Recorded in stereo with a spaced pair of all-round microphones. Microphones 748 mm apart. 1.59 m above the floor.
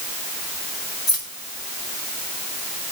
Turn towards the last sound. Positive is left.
turn(degrees=40)  # may be behind; listen again after turning